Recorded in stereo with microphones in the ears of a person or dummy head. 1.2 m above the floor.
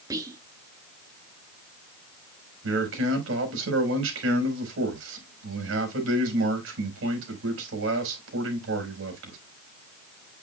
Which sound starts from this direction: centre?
Whispering, at 0.1 s.